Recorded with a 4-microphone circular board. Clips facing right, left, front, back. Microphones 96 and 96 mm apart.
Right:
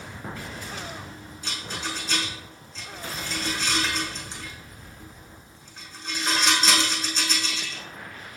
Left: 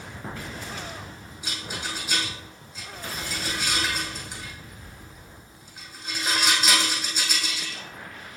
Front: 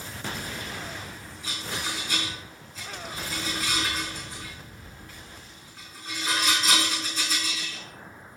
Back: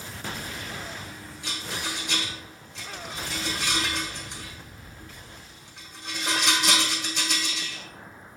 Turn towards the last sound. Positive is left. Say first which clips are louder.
# right 1 dB, even
turn(degrees=165)